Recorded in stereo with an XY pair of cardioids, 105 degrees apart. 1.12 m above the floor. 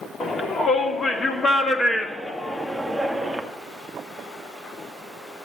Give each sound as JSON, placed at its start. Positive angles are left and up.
{"t": 0.2, "sound": "a shout", "azimuth_deg": 40, "distance_m": 2.5}